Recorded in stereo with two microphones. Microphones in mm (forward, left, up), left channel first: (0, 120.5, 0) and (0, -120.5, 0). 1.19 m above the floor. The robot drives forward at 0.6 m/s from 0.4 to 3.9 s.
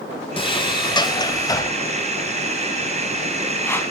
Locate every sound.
0.4 s a sliding door: 20° left (ahead or behind), 1.5 m; by 3.8 s 10° left (ahead or behind), 3.5 m